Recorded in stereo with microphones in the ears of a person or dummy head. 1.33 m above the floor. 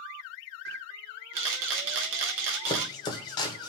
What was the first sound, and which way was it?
A camera shutter, 70° right (ahead or behind).